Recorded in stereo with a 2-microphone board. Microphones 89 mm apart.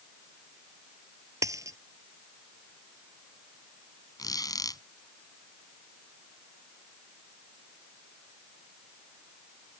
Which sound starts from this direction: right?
A dropped coin, at 1.4 s.